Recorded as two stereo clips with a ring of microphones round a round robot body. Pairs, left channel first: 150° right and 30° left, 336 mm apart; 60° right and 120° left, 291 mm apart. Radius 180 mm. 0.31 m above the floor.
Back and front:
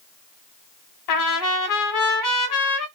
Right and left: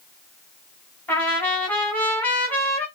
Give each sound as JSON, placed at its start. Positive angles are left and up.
{"t": 1.1, "sound": "a trumpet", "azimuth_deg": -145, "distance_m": 0.9}